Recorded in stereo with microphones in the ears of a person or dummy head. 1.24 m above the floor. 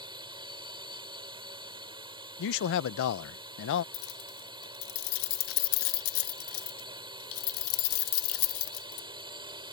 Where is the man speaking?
65° left (ahead or behind).